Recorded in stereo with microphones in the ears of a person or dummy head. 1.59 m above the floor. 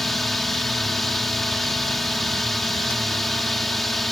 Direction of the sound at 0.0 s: Centre (ahead or behind).